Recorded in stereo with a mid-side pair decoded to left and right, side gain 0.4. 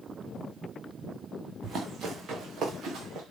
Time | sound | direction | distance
1.6 | running footsteps | 60° right | 5 m